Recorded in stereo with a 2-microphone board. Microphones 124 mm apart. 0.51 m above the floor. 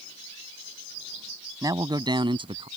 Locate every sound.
1.6 s a man speaking: 30° right (ahead or behind); by 2.7 s 45° right (ahead or behind)